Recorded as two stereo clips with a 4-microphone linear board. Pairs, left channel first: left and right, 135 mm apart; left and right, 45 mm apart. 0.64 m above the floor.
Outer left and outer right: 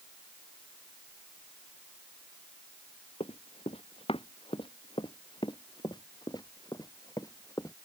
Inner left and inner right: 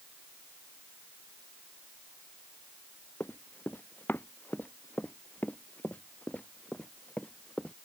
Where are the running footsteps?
50° left (ahead or behind); by 7.7 s 25° left (ahead or behind).